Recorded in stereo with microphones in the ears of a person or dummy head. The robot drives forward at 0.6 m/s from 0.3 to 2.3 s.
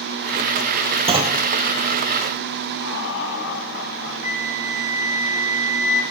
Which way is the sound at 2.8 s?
60° left (ahead or behind).